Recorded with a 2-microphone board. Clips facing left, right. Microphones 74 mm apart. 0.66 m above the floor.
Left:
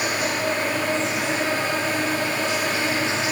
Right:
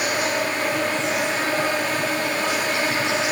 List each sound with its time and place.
0.0 s an insect: 65° right (ahead or behind), 2 m